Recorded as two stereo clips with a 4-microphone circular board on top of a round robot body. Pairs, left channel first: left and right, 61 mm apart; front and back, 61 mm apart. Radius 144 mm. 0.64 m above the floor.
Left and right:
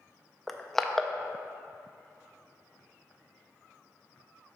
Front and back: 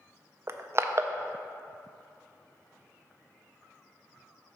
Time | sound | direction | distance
0.5 | crushing | 170° left | 0.6 m